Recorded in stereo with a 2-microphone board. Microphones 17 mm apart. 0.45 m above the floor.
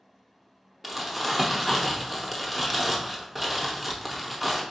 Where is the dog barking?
I don't hear a dog barking.